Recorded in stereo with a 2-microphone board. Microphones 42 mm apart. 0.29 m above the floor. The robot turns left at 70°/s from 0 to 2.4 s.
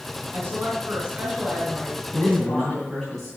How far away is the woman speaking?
About 3 m.